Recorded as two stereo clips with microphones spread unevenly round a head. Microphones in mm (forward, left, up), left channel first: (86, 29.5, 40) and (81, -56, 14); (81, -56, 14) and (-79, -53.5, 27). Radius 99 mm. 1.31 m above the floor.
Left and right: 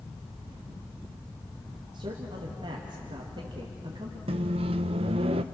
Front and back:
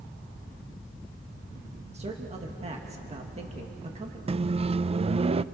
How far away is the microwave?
About 0.6 m.